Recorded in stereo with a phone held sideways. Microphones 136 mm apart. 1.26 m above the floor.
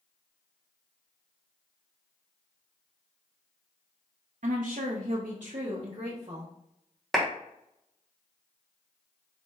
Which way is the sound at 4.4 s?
70° right (ahead or behind).